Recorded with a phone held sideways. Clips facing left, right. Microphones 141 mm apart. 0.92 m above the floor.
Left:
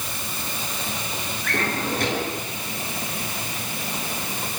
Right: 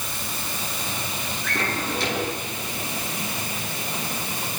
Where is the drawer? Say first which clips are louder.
Left 2 dB; 50° left (ahead or behind), 8 m.